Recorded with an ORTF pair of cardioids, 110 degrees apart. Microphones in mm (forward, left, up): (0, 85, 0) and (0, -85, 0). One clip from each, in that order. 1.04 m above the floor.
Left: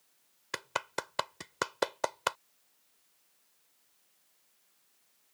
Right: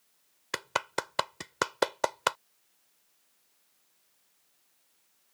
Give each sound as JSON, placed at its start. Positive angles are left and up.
{"t": 0.5, "sound": "a clap", "azimuth_deg": -20}